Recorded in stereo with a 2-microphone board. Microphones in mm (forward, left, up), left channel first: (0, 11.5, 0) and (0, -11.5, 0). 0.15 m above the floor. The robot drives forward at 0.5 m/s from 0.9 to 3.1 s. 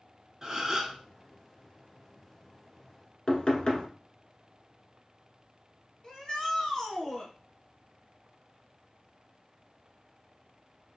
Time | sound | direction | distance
0.4 | a gasp | 20° right (ahead or behind) | 0.7 m
3.3 | knocking | 40° left (ahead or behind) | 1.1 m
6.0 | a shout | 30° left (ahead or behind) | 1.4 m